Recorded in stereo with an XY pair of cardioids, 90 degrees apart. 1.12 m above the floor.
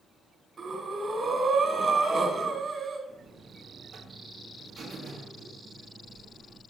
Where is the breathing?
50° right, 1.9 m.